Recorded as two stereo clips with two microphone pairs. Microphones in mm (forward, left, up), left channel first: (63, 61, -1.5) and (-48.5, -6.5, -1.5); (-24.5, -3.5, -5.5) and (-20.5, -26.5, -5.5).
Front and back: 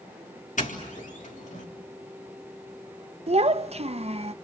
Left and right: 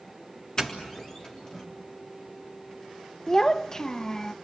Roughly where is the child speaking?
Behind.